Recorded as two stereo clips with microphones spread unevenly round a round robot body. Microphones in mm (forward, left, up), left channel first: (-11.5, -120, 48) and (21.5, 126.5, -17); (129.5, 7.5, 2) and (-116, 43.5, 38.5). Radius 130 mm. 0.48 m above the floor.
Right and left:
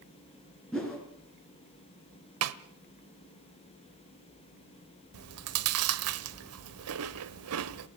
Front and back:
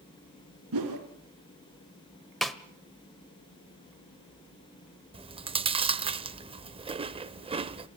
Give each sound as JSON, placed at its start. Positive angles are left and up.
{"t": 0.7, "sound": "a whoosh", "azimuth_deg": 175, "distance_m": 5.0}
{"t": 2.4, "sound": "a snare drum", "azimuth_deg": 80, "distance_m": 1.1}
{"t": 5.1, "sound": "chewing", "azimuth_deg": 100, "distance_m": 0.9}